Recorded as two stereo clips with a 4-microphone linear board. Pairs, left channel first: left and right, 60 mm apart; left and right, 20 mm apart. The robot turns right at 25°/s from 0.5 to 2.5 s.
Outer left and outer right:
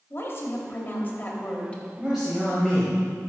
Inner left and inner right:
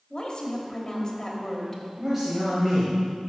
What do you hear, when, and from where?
0.1 s a woman speaking: 120° left, 1.2 m; by 1.8 s 155° left, 1.2 m
2.0 s a man speaking: 10° right (ahead or behind), 1.5 m; by 3.0 s 5° left (ahead or behind), 1.5 m